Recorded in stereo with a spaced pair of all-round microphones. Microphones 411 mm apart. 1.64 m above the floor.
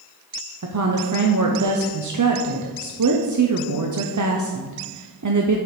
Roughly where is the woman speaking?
Right.